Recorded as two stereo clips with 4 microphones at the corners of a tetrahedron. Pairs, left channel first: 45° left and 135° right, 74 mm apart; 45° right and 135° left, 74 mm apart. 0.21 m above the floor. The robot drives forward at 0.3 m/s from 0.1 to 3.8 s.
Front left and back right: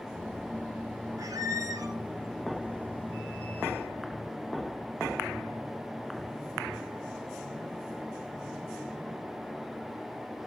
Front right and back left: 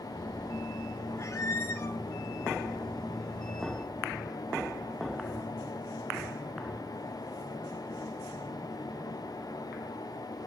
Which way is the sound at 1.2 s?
95° right.